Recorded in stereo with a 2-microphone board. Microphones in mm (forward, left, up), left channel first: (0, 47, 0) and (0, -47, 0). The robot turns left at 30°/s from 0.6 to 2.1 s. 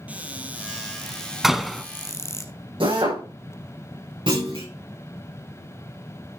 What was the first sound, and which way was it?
A cupboard door, 165° right.